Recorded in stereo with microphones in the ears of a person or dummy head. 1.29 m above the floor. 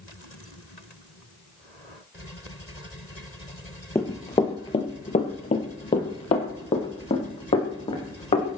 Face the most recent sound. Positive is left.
turn(degrees=30)  # may be behind; listen again after turning